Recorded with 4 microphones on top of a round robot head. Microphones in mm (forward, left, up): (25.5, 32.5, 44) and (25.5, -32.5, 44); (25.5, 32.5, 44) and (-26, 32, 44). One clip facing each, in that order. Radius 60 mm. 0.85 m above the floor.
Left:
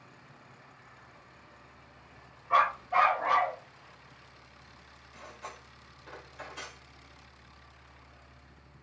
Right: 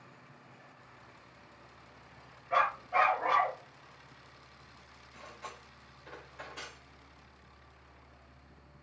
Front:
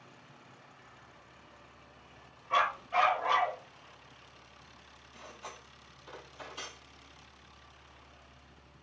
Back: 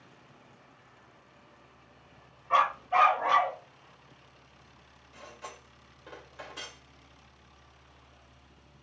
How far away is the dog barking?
About 2.5 m.